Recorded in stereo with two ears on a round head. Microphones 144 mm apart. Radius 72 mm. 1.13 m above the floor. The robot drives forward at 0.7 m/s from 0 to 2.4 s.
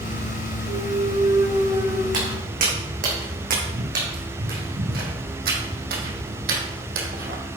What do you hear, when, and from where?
0.7 s a clunk: 50° right (ahead or behind), 0.7 m; by 2.0 s 20° right (ahead or behind), 1.5 m
2.1 s footsteps: 55° right (ahead or behind), 4.5 m; by 7.4 s 65° right (ahead or behind), 2.5 m